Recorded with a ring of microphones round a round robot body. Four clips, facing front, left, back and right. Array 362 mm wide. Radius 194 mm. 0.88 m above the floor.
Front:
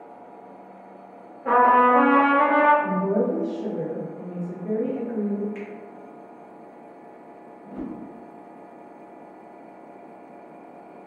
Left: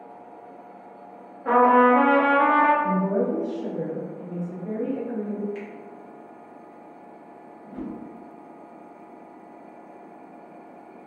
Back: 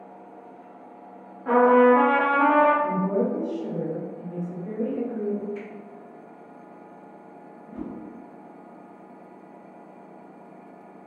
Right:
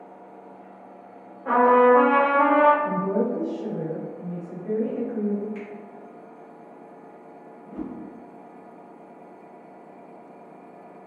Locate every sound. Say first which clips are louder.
1.4 s a trumpet: even, even; 40° left, 0.8 m
2.8 s a woman speaking: left 1 dB, front 1 dB; 20° left, 1.3 m
5.5 s a finger snap: even, front 2 dB; 10° left, 1.1 m
7.6 s a whoosh: even, front 2 dB; 20° left, 1.7 m